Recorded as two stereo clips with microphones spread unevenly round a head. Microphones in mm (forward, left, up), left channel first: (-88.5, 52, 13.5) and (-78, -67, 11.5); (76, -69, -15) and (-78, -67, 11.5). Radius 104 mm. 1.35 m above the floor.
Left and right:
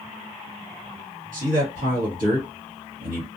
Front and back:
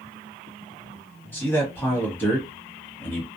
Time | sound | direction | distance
1.3 | a man speaking | 80° right | 1.3 m